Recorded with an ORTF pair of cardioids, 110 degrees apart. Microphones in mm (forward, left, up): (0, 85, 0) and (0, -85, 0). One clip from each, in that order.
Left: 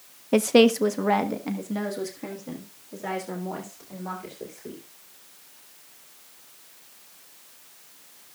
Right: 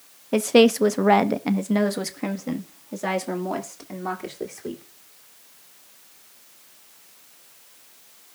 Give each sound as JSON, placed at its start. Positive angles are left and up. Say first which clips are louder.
{"t": 0.3, "sound": "a woman speaking", "louder": "right 1 dB", "azimuth_deg": 10, "distance_m": 0.6}